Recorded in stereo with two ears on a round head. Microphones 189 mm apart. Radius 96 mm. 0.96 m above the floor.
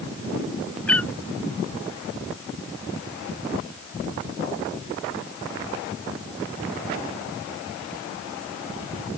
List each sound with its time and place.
0.9 s a cat meowing: 5° left (ahead or behind)